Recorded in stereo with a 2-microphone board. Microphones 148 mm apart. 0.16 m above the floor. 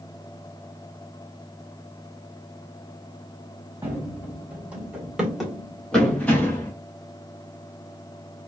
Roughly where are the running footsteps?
Centre.